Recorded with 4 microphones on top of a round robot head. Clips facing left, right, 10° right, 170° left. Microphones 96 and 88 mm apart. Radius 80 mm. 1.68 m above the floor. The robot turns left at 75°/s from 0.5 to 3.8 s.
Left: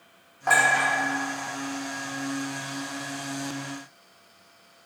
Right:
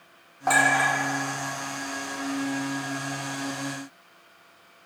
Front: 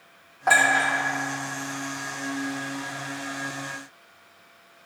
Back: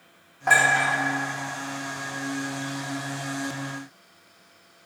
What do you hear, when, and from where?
0.5 s a clink: 60° right, 0.8 m; by 0.9 s 90° right, 0.8 m